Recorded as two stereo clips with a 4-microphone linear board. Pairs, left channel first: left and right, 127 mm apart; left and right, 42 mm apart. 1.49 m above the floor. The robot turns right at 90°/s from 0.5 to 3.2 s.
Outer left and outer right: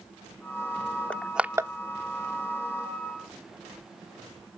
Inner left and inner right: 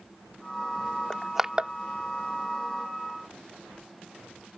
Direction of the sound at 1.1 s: 15° left (ahead or behind).